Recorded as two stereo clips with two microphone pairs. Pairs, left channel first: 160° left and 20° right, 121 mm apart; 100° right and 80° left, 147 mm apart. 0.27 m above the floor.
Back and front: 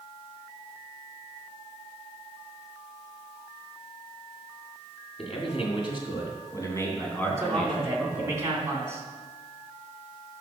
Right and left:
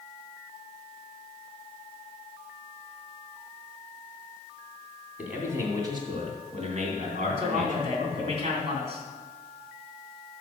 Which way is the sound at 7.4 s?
45° left.